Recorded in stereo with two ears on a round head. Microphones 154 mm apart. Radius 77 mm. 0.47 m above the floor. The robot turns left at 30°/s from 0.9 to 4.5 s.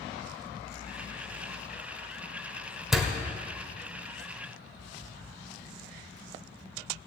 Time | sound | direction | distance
2.9 | a door slam | centre (ahead or behind) | 1.1 m